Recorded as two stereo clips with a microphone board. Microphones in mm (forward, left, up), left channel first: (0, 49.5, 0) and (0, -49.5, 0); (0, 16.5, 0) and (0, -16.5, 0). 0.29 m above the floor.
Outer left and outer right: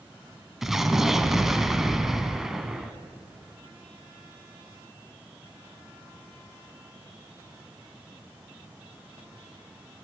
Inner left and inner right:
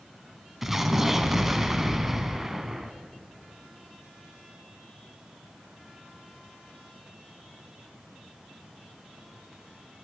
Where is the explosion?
5° right (ahead or behind), 1.1 m.